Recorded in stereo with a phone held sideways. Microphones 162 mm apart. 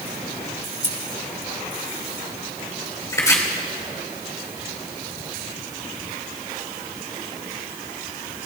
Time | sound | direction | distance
0.8 | scissors | 35° right (ahead or behind) | 1.9 m
3.1 | chopping | 20° left (ahead or behind) | 2.5 m